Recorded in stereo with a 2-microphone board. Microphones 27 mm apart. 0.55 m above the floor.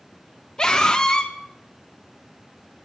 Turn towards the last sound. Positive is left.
turn(degrees=25)  # may be behind; listen again after turning